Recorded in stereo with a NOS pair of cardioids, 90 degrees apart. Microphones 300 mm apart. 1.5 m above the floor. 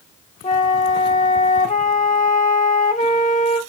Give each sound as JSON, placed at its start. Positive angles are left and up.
{"t": 0.4, "sound": "a flute", "azimuth_deg": 25, "distance_m": 0.8}